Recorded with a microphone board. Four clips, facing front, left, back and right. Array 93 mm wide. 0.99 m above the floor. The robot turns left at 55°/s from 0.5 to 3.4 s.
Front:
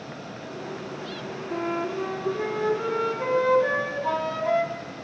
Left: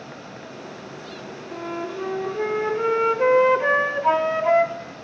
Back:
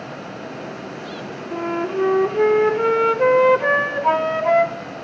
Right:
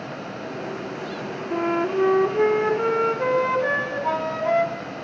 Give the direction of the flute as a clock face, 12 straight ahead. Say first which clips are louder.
Right 8 dB, back 5 dB; 3 o'clock.